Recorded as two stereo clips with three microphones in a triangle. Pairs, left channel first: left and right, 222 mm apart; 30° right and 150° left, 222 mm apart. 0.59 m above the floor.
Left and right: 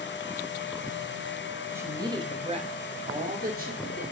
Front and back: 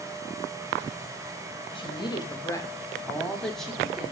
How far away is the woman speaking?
About 1.0 m.